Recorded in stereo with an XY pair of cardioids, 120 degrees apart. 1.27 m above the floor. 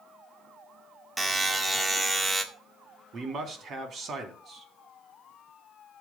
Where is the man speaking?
50° right, 3.5 m.